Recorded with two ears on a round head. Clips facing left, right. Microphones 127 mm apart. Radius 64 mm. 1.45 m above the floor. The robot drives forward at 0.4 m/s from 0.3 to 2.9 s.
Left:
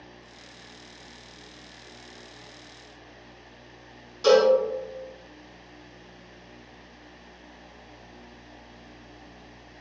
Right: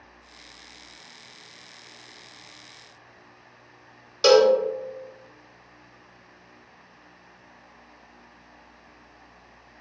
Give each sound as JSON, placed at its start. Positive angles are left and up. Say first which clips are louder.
{"t": 4.2, "sound": "a cowbell", "louder": "right 2 dB", "side_deg": -75, "distance_m": 0.5}